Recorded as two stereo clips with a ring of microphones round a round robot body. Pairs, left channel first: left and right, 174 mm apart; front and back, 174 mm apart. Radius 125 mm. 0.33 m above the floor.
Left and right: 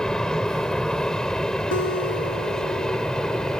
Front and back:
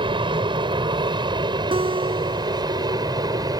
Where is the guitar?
120° left.